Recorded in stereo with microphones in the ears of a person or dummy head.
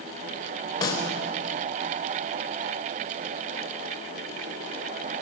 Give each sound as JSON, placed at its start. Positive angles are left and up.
{"t": 0.8, "sound": "a snare drum", "side_deg": 25, "distance_m": 3.5}